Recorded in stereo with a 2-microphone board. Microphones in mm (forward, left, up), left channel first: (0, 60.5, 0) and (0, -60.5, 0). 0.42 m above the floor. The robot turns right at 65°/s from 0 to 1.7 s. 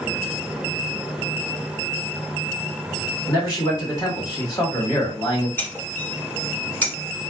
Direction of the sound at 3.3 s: 35° left (ahead or behind).